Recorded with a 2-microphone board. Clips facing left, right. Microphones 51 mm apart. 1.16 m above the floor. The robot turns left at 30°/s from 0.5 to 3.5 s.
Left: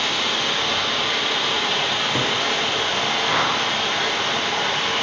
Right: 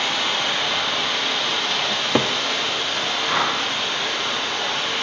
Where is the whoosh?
5° right (ahead or behind), 4.5 m; by 3.6 s 10° right (ahead or behind), 4.5 m.